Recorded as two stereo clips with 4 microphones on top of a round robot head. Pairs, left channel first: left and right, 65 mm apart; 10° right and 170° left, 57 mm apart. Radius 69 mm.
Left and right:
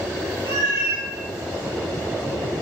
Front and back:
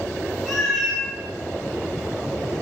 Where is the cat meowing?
70° left, 0.7 m.